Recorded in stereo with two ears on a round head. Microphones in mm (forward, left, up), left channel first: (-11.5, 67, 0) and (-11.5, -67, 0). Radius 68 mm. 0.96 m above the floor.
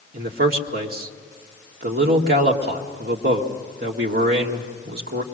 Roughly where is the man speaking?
Right.